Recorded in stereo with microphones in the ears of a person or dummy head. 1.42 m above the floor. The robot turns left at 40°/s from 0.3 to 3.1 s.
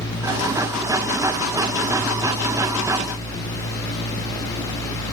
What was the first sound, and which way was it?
Only background noise.